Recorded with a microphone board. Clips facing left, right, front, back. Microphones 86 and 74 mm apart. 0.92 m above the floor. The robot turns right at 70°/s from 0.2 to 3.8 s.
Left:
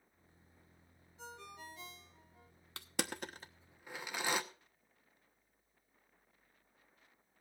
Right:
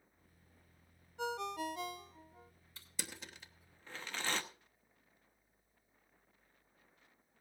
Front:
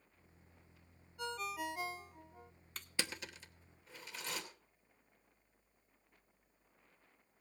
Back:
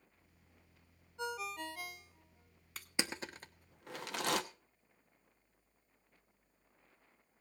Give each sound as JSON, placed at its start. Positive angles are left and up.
{"t": 1.2, "sound": "a ringtone", "azimuth_deg": -110, "distance_m": 0.6}
{"t": 2.8, "sound": "crushing", "azimuth_deg": 95, "distance_m": 1.0}